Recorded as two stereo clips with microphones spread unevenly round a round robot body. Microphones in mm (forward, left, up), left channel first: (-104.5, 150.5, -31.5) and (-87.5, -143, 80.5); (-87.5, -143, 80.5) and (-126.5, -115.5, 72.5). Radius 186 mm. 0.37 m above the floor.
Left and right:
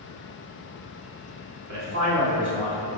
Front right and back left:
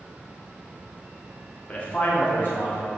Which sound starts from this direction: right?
A man speaking, at 1.7 s.